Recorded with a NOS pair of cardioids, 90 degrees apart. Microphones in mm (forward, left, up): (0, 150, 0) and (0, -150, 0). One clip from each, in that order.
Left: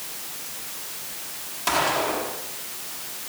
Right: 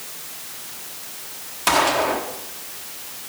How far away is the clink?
No clink in this recording.